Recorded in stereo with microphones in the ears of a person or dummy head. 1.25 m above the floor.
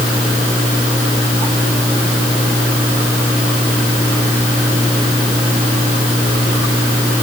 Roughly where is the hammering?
I don't hear hammering.